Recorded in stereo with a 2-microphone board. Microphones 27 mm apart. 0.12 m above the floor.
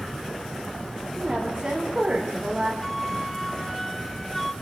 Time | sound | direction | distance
1.2 | a woman speaking | 40° right (ahead or behind) | 9 m
2.8 | a flute | 5° left (ahead or behind) | 0.8 m